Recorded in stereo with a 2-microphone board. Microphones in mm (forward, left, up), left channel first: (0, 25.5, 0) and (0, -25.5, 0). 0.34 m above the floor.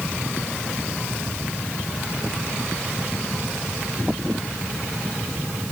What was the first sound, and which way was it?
Only background noise.